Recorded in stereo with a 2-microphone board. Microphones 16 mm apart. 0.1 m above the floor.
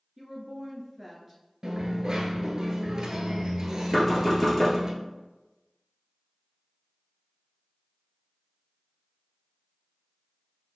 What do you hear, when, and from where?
0.2 s a woman speaking: 10° right (ahead or behind), 1.2 m
1.6 s a dropped coin: 45° right (ahead or behind), 1.0 m
3.9 s knocking: 10° left (ahead or behind), 1.5 m